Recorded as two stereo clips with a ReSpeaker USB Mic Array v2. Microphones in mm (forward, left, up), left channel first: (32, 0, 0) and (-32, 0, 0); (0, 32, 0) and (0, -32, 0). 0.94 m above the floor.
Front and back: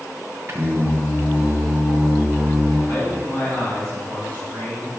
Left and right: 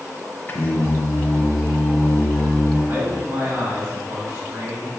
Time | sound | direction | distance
0.5 | singing | 135° left | 0.8 m
2.9 | a man speaking | 55° right | 2 m